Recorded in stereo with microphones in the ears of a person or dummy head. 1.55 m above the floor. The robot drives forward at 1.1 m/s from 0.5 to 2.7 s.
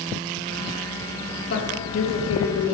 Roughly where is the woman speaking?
Left.